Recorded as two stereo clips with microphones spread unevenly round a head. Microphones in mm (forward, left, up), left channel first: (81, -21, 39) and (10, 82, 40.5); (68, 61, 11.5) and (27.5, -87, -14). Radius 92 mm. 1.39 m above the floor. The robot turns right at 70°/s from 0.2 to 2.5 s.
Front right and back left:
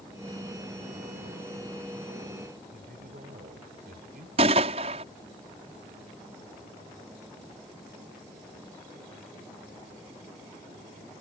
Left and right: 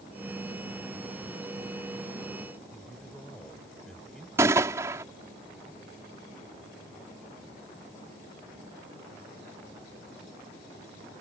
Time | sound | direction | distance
2.7 | a man speaking | 160° left | ?
4.4 | a gunshot | 175° left | ?